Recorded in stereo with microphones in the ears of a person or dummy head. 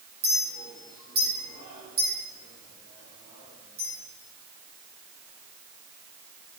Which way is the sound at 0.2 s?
25° right (ahead or behind).